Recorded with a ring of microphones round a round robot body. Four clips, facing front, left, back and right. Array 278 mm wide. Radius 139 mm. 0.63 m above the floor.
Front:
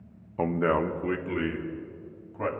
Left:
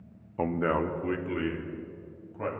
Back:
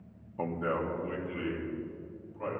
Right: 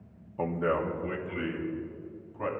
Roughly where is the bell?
I don't hear a bell.